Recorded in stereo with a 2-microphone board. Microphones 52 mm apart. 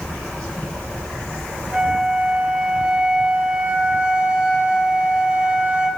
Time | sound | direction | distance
1.7 | a flute | 25° right (ahead or behind) | 6 m